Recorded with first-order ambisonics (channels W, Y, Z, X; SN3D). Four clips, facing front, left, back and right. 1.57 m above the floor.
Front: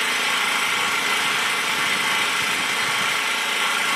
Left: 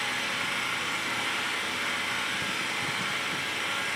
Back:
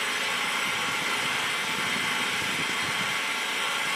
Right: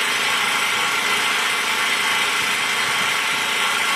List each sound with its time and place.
0.0 s an engine running: 55° right, 2 m